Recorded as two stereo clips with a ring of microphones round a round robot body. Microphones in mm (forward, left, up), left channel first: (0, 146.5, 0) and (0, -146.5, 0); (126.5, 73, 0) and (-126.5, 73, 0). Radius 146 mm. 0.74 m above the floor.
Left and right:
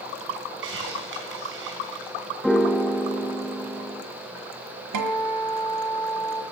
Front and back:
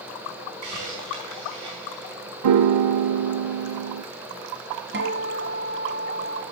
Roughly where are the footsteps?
No footsteps in this recording.